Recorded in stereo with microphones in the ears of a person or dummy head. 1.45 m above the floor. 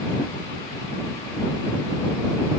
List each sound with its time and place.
Only background noise.